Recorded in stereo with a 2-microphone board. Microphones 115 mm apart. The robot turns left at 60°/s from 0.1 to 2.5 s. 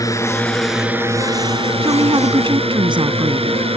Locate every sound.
0.0 s a drone: 35° left; by 3.8 s 110° right
1.8 s a woman speaking: 70° right; by 3.6 s 115° right